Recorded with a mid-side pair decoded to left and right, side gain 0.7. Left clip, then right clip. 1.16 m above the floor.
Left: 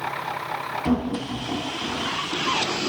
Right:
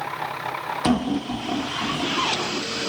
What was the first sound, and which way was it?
Laughter, 25° right.